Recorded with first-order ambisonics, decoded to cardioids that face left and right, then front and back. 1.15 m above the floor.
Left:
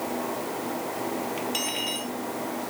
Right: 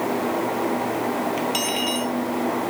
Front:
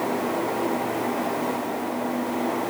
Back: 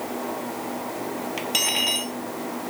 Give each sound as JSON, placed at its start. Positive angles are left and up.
{"t": 1.4, "sound": "cutlery clinking", "azimuth_deg": -165}